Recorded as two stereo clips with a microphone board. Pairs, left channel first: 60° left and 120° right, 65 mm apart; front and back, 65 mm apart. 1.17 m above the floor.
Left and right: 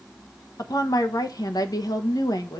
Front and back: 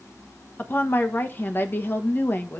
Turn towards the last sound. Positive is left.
turn(degrees=55)